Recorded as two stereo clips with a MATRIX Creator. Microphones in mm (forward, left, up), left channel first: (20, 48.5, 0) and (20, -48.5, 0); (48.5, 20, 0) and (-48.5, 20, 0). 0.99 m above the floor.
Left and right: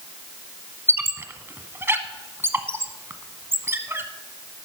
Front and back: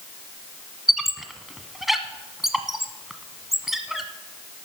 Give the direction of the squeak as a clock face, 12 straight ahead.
3 o'clock.